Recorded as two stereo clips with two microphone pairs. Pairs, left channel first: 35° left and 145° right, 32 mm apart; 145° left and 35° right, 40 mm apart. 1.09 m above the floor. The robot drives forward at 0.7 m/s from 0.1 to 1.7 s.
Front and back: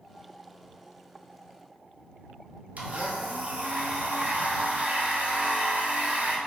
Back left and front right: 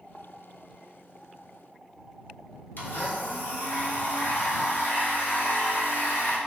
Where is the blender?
175° left, 0.6 m.